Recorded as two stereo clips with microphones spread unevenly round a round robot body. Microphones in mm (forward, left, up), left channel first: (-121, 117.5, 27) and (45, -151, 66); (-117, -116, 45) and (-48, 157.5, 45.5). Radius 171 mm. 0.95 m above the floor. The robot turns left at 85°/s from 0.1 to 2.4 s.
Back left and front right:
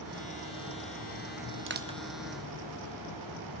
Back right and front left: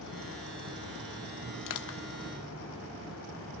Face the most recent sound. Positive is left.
turn(degrees=-175)